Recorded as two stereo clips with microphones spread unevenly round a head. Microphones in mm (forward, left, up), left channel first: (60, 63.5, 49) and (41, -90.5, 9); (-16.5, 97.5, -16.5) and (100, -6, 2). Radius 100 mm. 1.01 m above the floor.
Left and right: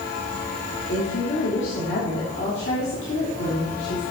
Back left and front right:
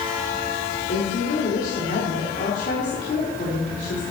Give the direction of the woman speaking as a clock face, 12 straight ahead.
8 o'clock.